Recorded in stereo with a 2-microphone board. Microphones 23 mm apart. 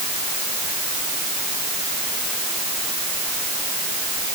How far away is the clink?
No clink in this recording.